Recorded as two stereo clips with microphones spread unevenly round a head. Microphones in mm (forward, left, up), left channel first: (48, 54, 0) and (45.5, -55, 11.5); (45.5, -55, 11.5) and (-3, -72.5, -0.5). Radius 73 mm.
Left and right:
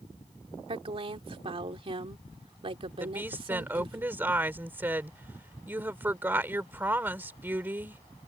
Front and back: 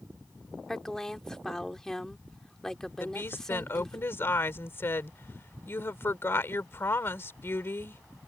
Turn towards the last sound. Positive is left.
turn(degrees=-20)